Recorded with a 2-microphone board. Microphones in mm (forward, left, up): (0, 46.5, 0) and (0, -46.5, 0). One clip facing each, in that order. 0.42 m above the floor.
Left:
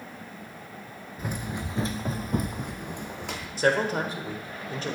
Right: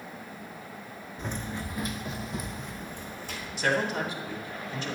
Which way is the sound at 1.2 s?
5° left (ahead or behind).